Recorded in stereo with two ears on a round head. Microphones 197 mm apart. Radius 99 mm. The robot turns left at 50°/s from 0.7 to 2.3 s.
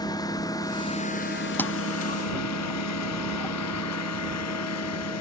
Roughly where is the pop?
Centre.